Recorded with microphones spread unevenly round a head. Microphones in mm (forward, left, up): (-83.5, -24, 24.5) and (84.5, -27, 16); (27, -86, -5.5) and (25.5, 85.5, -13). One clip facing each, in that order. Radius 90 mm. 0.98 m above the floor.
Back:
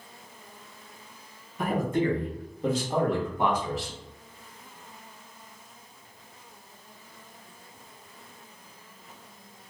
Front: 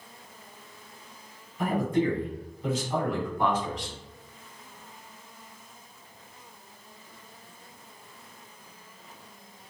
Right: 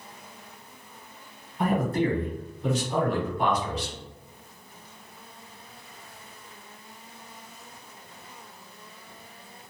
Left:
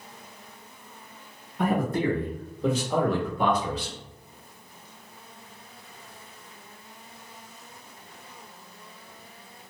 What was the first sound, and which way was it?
A man speaking, 130° left.